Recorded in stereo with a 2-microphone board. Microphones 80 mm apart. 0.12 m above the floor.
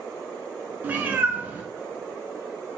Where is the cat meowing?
25° right (ahead or behind), 0.5 m.